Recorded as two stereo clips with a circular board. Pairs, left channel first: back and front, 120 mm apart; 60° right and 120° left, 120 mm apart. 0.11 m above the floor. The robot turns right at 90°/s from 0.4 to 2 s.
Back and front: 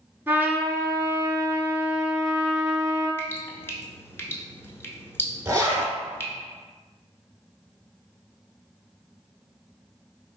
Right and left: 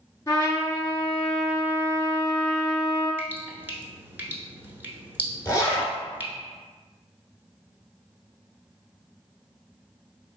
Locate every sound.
0.3 s a trumpet: 55° right, 1.1 m; by 3.1 s 90° left, 1.1 m
3.2 s dripping: 155° left, 0.7 m
5.5 s a zipper: 40° right, 1.5 m